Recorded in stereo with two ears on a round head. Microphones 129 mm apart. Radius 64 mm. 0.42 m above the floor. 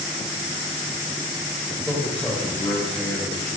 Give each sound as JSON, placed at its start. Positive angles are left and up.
{"t": 1.8, "sound": "a man speaking", "side_deg": -5, "distance_m": 2.0}